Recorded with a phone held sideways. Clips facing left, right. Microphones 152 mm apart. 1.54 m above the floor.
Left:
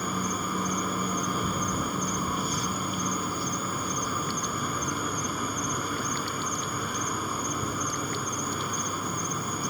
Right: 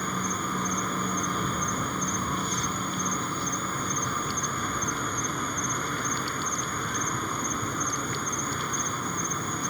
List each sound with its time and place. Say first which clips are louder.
0.0 s an insect: left 1 dB; 10° left (ahead or behind)